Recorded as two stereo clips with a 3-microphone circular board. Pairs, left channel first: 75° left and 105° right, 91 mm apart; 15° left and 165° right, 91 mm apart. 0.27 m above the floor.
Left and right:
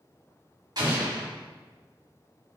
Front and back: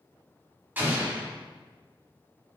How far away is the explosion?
About 1.5 m.